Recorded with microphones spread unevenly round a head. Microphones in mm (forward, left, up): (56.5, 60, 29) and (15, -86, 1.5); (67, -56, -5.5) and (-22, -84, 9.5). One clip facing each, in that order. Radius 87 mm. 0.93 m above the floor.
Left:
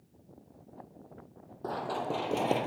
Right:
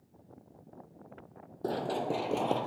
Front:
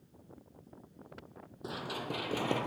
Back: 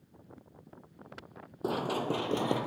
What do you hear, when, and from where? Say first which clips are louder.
1.6 s running footsteps: right 2 dB, back 8 dB; 170° right, 1.6 m; by 2.7 s 125° left, 1.1 m